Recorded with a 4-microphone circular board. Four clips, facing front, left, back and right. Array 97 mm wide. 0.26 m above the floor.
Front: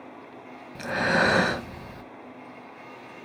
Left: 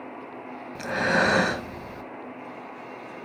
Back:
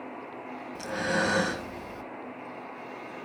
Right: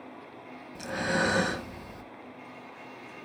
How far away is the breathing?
About 0.6 m.